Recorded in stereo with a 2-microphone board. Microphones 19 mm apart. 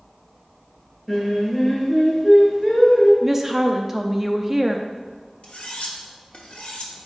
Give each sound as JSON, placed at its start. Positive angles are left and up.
{"t": 1.1, "sound": "singing", "side_deg": 10, "distance_m": 2.5}
{"t": 3.2, "sound": "a woman speaking", "side_deg": -15, "distance_m": 0.5}
{"t": 5.4, "sound": "cutlery clinking", "side_deg": 75, "distance_m": 1.3}